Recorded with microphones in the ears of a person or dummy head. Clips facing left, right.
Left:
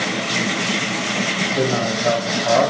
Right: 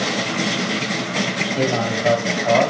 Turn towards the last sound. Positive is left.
turn(degrees=5)  # may be behind; listen again after turning